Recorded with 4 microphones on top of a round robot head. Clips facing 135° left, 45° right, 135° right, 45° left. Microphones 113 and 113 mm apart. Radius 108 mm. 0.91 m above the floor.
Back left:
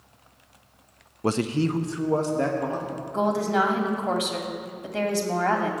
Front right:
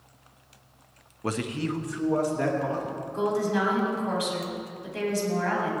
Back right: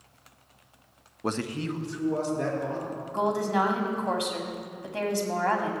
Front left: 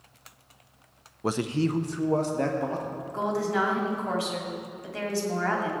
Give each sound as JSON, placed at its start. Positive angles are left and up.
{"t": 1.2, "sound": "a man speaking", "azimuth_deg": 140, "distance_m": 0.6}
{"t": 3.1, "sound": "a woman speaking", "azimuth_deg": 160, "distance_m": 2.0}